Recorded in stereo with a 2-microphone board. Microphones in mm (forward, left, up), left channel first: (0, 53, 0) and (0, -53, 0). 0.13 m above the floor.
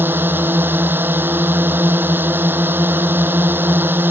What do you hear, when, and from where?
0.0 s a drone: 20° right (ahead or behind)